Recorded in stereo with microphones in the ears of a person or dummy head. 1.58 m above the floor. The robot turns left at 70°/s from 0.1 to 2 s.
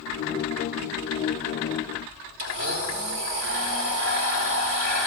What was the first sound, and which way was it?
A blender, 50° right (ahead or behind).